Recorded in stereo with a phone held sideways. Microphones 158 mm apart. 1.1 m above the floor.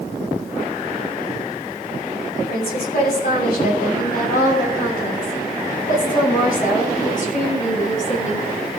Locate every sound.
2.4 s a woman speaking: 85° left, 6.5 m; by 8.5 s 55° left (ahead or behind), 7.5 m